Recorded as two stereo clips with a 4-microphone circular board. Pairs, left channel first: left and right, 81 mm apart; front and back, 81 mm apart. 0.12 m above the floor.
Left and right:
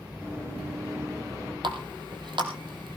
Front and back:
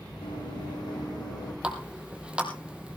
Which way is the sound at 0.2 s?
30° right.